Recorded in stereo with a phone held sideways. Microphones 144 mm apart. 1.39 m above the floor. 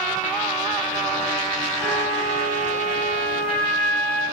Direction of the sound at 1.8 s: 10° left (ahead or behind).